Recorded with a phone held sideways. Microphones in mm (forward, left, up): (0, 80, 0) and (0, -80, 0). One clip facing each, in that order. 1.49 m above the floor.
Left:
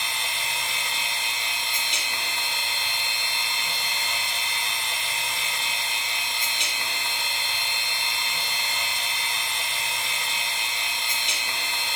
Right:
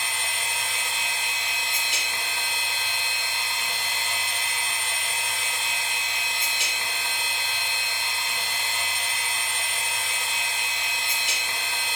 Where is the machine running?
5° right (ahead or behind), 1.2 m.